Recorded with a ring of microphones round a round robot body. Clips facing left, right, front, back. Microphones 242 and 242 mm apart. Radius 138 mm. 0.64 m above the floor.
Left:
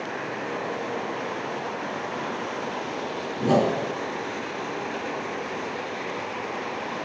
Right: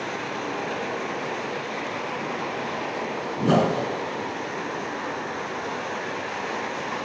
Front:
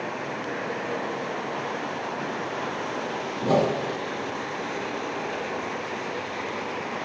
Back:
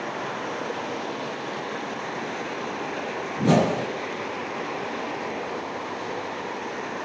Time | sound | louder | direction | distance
3.4 | a whoosh | even, back 2 dB | 160° right | 1.4 m